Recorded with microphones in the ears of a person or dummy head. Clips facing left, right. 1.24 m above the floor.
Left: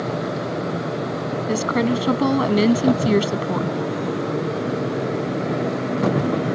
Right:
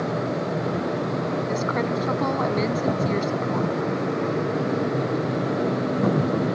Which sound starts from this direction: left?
A woman speaking, at 1.5 s.